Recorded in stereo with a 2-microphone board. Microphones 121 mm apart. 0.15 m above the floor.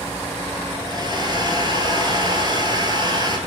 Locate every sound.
0.8 s a hair dryer: 35° right (ahead or behind), 1.4 m